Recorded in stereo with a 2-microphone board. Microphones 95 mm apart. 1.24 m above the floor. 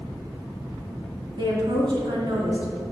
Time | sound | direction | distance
1.4 | a woman speaking | 50° right (ahead or behind) | 2.5 m